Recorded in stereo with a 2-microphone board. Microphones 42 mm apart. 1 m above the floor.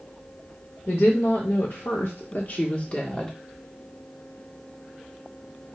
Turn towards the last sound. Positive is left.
turn(degrees=10)  # may be behind; listen again after turning